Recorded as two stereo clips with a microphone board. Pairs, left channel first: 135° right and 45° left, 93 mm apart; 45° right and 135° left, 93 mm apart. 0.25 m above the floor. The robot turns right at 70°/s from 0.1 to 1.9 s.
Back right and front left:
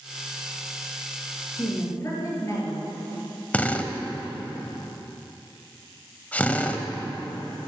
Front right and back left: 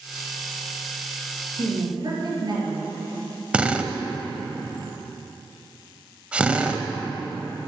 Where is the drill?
175° right, 0.8 m.